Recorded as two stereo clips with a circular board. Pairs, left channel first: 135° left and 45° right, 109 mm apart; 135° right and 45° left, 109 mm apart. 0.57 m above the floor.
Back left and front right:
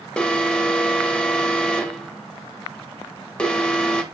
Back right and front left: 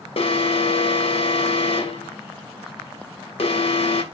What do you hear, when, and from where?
0.2 s an alarm: 145° right, 0.5 m